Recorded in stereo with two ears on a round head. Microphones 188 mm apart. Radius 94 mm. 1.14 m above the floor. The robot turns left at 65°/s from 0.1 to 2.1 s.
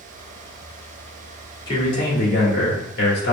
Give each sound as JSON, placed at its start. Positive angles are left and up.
{"t": 1.7, "sound": "a man speaking", "side_deg": 25, "distance_m": 2.0}